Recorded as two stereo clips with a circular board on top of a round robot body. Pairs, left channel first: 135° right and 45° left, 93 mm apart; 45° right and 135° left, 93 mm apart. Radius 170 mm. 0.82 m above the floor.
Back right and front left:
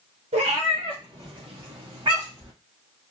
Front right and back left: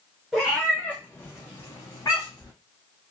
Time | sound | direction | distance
0.3 | a cat meowing | 45° left | 0.8 m